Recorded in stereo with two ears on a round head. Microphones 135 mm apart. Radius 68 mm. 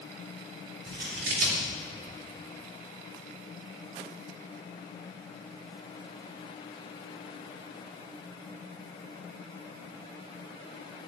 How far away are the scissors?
About 2.5 m.